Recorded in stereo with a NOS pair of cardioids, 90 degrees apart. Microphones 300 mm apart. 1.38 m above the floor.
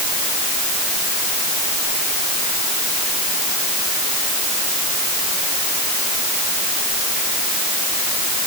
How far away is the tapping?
I don't hear tapping.